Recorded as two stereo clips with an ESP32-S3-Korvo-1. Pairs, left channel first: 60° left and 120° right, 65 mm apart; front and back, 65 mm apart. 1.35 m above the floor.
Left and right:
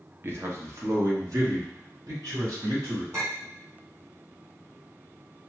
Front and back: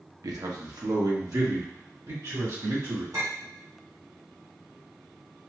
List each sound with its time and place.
0.2 s a man speaking: 170° right, 0.8 m; by 3.0 s 150° right, 3 m
3.1 s a clink: 170° right, 2 m